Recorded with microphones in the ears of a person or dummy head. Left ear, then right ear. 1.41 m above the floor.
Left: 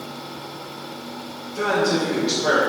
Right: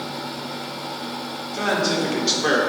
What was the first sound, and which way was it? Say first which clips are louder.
A man speaking: left 1 dB; 35° right (ahead or behind).